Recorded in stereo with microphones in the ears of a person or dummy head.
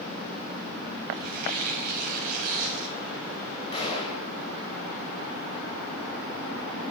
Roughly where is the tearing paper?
Right.